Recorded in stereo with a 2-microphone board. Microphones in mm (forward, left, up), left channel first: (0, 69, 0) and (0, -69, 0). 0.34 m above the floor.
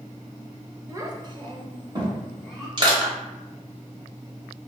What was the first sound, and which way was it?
A child speaking, 25° right (ahead or behind).